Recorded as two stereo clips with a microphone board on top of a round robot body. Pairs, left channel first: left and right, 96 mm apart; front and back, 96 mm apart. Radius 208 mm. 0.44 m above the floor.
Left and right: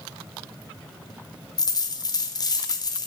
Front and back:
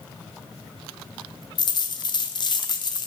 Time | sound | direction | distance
1.6 | a dropped coin | 40° left | 0.9 m